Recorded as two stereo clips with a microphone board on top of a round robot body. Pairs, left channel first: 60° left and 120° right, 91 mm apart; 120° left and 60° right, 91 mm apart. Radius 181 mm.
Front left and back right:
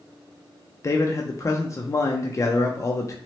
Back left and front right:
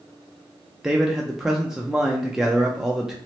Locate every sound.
0.8 s a man speaking: 25° left, 0.6 m